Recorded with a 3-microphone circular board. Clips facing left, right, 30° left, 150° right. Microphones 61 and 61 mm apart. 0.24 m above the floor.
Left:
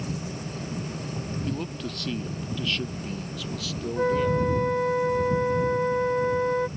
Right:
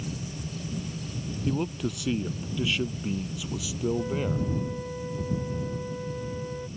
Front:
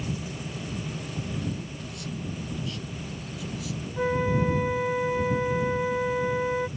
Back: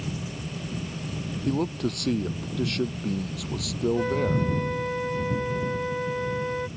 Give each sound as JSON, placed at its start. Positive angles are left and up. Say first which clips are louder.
{"t": 1.4, "sound": "a man speaking", "louder": "right 3 dB, back 9 dB", "azimuth_deg": -170}
{"t": 4.0, "sound": "a flute", "louder": "left 6 dB, front 4 dB", "azimuth_deg": 110}